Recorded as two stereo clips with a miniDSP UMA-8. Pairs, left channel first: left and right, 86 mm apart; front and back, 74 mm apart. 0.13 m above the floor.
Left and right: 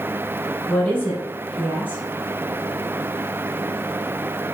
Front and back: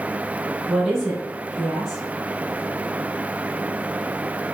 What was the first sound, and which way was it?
A woman speaking, 95° left.